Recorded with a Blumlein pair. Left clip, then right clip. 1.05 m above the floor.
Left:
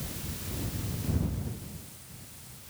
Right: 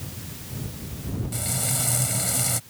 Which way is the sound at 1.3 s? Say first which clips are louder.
Right 15 dB; 45° right.